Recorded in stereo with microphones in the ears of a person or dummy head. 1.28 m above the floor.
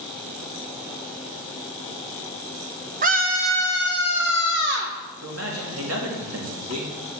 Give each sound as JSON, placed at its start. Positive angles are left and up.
{"t": 3.0, "sound": "a scream", "side_deg": -40, "distance_m": 0.8}
{"t": 5.2, "sound": "a man speaking", "side_deg": -75, "distance_m": 2.5}